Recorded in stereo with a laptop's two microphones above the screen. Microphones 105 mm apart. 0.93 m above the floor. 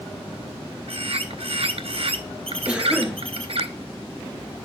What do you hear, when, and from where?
0.9 s a bird: 65° right (ahead or behind), 0.8 m
2.7 s a cough: 10° right (ahead or behind), 1.1 m